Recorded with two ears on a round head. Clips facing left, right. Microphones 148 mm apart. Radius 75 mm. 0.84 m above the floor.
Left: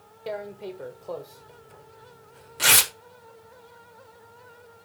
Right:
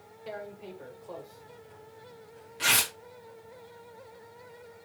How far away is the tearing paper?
About 1.1 m.